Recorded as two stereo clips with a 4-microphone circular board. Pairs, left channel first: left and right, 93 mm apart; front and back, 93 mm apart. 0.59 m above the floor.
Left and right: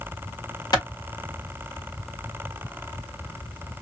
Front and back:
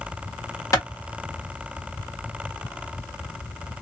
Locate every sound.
0.7 s a clap: 50° left, 1.3 m